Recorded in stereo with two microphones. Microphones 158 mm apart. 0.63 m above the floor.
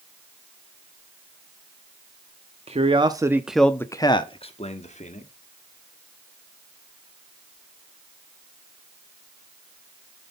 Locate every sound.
2.7 s a man speaking: 40° right (ahead or behind), 0.7 m; by 5.3 s 50° left (ahead or behind), 1.2 m